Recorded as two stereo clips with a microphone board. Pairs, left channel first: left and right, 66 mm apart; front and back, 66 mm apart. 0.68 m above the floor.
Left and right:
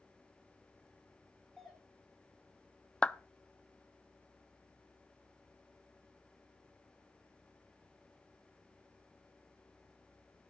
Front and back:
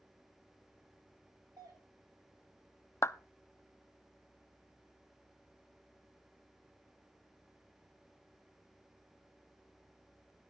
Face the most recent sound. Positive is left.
turn(degrees=20)